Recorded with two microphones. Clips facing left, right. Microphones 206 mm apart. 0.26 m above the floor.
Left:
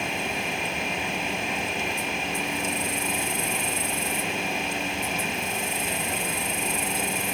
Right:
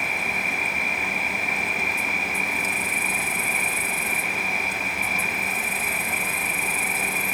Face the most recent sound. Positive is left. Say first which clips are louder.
# left 2 dB
turn(degrees=25)  # may be behind; listen again after turning